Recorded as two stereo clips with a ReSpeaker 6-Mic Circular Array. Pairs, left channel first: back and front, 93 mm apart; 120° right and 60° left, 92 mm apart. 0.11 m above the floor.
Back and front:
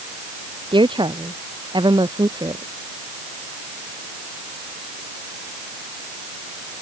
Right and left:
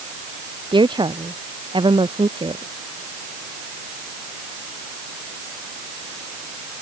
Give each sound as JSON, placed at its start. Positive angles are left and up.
{"t": 0.7, "sound": "a woman speaking", "azimuth_deg": 30}